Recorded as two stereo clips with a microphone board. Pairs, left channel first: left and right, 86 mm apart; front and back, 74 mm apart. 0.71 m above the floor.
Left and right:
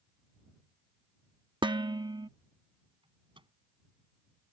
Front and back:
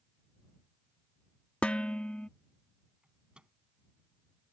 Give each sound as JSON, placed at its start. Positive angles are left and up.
{"t": 1.6, "sound": "dishes clattering", "azimuth_deg": -75}
{"t": 3.0, "sound": "a microwave", "azimuth_deg": -105}